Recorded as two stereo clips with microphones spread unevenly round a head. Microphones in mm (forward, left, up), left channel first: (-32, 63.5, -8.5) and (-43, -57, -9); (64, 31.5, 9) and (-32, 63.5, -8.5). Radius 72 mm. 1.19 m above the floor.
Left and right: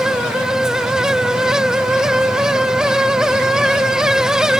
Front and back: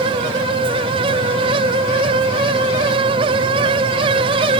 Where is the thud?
I don't hear a thud.